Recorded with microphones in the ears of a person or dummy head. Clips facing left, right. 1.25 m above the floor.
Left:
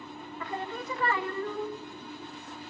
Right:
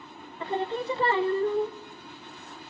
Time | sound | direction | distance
0.4 | singing | 20° right (ahead or behind) | 0.8 m